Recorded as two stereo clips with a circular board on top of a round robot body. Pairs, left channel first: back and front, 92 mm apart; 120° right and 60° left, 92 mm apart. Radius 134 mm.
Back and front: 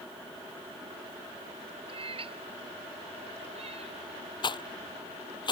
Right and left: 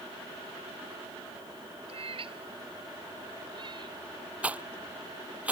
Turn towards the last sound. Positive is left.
turn(degrees=135)